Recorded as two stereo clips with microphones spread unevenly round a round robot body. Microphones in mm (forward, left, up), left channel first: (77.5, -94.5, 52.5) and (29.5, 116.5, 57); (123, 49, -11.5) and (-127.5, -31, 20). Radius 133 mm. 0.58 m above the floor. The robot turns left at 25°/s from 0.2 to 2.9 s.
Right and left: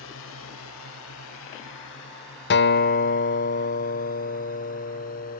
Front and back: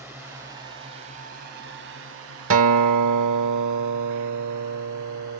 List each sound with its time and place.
0.0 s a drone: 80° right; by 5.4 s 135° right
2.5 s a guitar: 120° right; by 5.4 s 130° right